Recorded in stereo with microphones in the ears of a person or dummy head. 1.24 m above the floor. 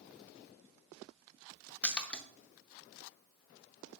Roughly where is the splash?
Centre.